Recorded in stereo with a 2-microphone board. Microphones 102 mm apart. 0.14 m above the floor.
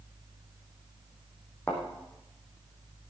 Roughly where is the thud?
Centre.